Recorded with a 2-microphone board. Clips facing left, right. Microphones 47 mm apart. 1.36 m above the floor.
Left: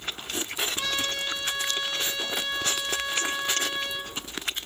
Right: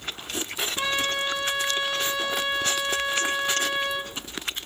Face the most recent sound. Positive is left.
turn(degrees=-25)  # may be behind; listen again after turning